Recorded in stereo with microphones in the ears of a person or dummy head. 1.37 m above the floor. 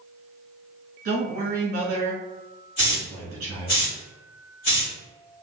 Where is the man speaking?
40° right (ahead or behind), 1.4 m.